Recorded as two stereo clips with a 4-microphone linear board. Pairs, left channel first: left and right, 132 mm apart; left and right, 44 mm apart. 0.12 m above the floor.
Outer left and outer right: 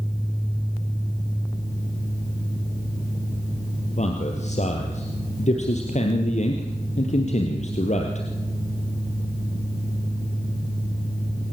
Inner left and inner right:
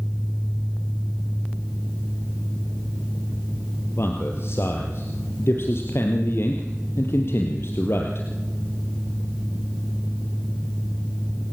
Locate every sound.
4.0 s a man speaking: 65° left (ahead or behind), 2.5 m